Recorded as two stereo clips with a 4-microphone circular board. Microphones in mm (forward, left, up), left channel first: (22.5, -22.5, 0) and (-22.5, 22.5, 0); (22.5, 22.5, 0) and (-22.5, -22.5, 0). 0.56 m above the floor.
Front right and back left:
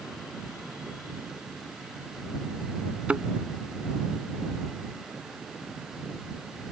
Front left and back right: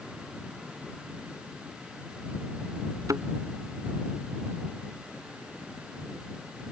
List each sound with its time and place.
3.1 s a thud: 155° right